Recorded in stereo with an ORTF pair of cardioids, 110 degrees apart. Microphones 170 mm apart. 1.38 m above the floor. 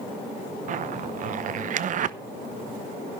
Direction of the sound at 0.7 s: 50° right.